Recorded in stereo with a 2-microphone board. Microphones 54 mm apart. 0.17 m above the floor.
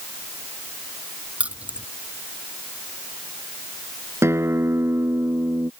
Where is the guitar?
55° right (ahead or behind).